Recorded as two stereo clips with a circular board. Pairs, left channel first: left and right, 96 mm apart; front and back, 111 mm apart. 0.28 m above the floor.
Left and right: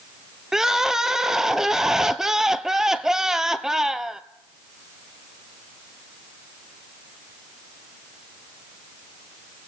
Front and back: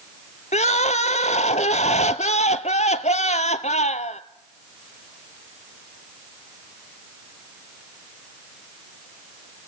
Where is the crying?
5° right, 0.9 m.